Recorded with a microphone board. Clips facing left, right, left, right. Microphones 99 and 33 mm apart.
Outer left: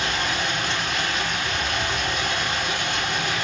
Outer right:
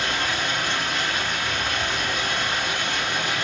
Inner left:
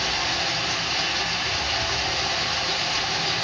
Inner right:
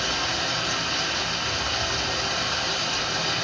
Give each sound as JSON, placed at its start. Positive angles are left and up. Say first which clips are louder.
{"t": 0.0, "sound": "running water", "louder": "even, inner left 1 dB", "side_deg": 60, "distance_m": 3.0}